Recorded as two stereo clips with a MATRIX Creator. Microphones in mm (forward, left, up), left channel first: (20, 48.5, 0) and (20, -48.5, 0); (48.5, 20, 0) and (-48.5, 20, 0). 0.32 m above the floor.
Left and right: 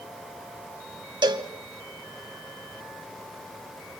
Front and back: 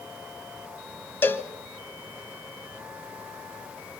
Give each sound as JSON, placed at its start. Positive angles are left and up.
{"t": 1.2, "sound": "a cowbell", "azimuth_deg": -65, "distance_m": 1.6}